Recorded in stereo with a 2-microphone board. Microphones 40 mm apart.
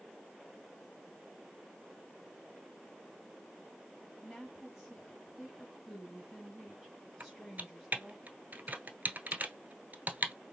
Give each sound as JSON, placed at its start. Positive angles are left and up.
{"t": 4.2, "sound": "a woman speaking", "side_deg": 0, "distance_m": 1.8}
{"t": 7.2, "sound": "typing on a keyboard", "side_deg": -40, "distance_m": 0.9}